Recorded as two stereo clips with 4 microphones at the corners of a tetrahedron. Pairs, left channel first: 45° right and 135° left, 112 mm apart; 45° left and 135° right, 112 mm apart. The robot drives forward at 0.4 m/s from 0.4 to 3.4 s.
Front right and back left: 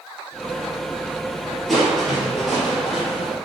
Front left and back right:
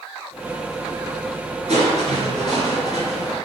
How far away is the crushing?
About 4 m.